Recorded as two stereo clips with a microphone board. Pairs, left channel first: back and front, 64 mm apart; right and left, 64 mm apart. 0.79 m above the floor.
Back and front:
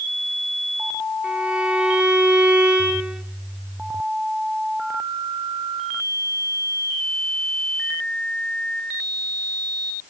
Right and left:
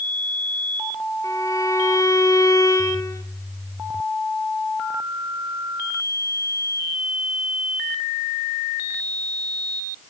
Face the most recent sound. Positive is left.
turn(degrees=-75)